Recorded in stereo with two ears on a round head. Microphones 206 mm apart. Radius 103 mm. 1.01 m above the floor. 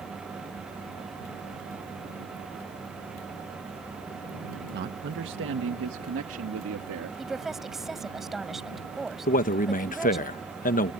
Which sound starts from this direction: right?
A man speaking, at 4.7 s.